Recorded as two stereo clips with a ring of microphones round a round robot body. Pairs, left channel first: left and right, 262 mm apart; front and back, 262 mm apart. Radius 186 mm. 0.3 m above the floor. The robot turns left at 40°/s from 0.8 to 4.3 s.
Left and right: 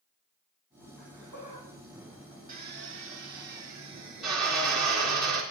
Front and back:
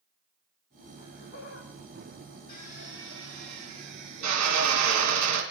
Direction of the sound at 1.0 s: 95° right.